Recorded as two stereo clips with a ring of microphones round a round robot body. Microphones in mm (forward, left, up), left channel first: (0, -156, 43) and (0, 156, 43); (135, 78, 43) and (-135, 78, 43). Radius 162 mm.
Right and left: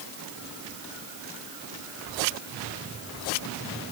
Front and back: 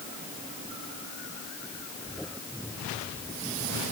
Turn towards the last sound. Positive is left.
No sound to turn to.